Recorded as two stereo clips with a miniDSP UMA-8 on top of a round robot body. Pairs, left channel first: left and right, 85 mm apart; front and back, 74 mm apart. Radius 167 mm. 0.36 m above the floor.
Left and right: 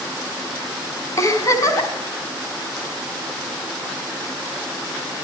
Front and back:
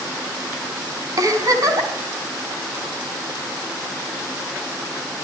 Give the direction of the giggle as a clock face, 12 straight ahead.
7 o'clock.